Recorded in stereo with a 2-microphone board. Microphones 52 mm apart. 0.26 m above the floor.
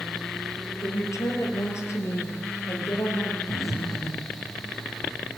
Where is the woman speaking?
65° left (ahead or behind), 7 m; by 3.4 s 45° left (ahead or behind), 6.5 m.